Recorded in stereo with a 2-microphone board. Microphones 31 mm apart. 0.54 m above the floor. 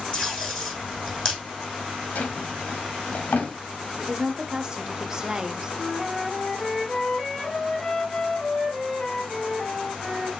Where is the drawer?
60° left (ahead or behind), 1.4 m.